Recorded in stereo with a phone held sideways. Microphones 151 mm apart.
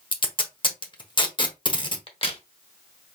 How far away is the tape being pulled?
About 1.1 m.